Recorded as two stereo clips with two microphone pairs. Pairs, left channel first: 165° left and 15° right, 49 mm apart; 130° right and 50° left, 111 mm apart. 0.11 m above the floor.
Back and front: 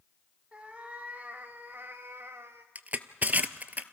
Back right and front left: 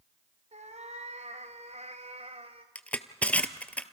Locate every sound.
0.5 s a cat meowing: 55° left, 2.5 m; by 2.6 s 20° left, 2 m
2.8 s crushing: 55° right, 0.8 m